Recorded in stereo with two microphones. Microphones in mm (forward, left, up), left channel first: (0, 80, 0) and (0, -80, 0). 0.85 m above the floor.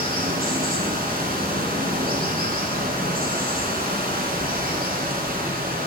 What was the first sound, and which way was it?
Running water, 70° right (ahead or behind).